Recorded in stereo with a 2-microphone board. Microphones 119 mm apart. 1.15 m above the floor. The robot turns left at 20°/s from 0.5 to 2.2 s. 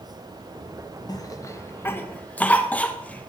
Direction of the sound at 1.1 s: 35° left (ahead or behind).